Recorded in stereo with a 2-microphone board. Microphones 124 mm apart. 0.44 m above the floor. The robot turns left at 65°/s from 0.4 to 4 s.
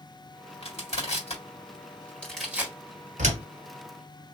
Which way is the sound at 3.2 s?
70° right (ahead or behind).